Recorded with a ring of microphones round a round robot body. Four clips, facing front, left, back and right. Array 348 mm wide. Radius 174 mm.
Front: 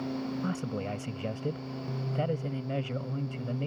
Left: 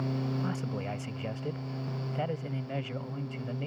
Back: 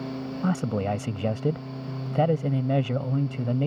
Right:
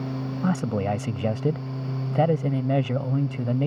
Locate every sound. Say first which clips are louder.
0.4 s a man speaking: right 10 dB, back 7 dB; 125° right